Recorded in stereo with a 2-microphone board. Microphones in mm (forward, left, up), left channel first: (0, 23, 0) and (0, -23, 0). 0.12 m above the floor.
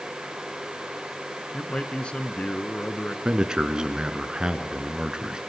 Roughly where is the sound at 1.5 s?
Left.